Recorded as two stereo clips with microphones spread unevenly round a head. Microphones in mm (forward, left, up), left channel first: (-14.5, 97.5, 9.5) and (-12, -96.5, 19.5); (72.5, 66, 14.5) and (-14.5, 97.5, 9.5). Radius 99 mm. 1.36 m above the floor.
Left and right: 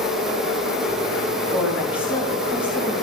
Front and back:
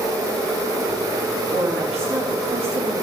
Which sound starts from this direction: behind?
A woman speaking, at 1.5 s.